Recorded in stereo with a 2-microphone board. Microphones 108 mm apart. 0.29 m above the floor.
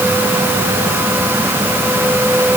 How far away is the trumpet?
I don't hear a trumpet.